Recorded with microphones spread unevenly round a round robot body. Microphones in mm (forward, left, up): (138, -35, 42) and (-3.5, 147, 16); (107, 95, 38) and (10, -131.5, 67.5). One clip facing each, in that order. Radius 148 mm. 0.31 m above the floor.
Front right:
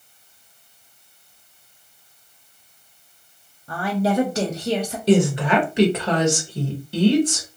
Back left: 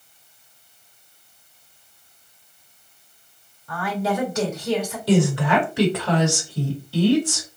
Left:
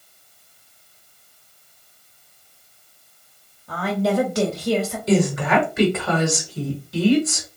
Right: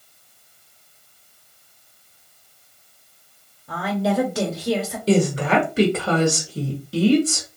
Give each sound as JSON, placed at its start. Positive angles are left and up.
{"t": 3.7, "sound": "a woman speaking", "azimuth_deg": -15, "distance_m": 0.9}
{"t": 5.1, "sound": "a woman speaking", "azimuth_deg": -110, "distance_m": 1.2}